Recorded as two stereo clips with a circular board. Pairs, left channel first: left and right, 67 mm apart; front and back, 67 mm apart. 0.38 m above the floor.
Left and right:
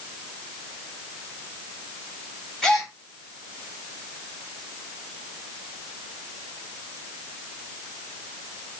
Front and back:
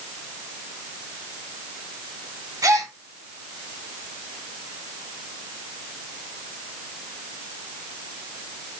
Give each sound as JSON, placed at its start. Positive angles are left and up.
{"t": 2.6, "sound": "a gasp", "azimuth_deg": 170, "distance_m": 2.5}